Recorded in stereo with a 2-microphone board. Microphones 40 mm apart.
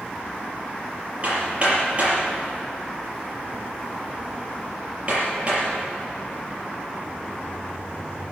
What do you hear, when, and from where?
1.2 s hammering: 30° right (ahead or behind), 6 m